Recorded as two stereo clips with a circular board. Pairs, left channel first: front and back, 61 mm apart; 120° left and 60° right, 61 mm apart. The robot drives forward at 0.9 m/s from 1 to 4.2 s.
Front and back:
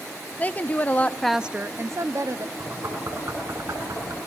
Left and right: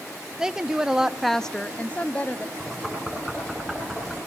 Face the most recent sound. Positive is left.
turn(degrees=-155)